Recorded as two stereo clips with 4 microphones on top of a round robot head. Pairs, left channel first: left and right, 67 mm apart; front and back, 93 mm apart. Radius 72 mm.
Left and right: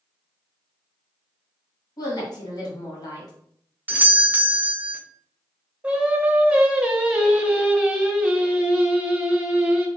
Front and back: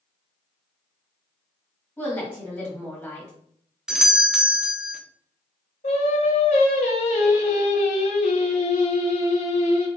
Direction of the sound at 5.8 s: 20° right.